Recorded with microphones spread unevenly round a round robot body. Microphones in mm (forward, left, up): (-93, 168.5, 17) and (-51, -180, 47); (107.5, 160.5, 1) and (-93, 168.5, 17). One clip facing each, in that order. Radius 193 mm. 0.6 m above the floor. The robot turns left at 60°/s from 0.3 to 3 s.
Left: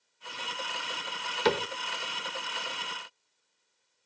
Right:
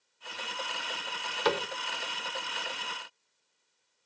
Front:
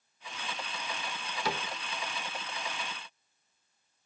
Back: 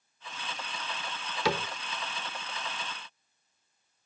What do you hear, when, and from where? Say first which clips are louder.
1.4 s a cupboard door: left 2 dB, back 6 dB; 160° left, 0.7 m; by 1.7 s 145° left, 0.7 m